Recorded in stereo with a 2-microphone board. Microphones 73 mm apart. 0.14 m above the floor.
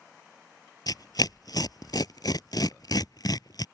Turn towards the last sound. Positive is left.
turn(degrees=65)  # may be behind; listen again after turning